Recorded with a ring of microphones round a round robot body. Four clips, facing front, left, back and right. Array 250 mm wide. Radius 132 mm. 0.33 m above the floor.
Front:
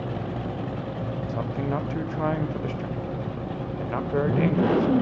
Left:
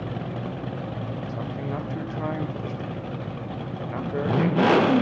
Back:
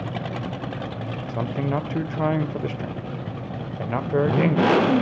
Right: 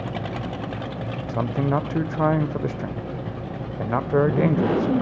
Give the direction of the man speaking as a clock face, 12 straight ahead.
4 o'clock.